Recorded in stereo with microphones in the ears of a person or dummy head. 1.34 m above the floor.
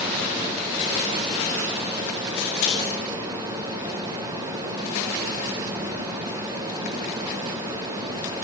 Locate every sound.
2.4 s scissors: 55° left (ahead or behind), 4.5 m